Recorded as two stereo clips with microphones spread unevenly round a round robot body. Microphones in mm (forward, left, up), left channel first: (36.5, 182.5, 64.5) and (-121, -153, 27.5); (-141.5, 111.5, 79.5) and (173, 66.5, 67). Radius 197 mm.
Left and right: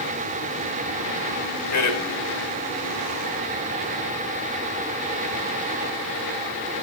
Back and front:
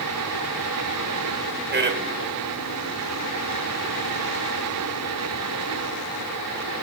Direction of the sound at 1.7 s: 35° left.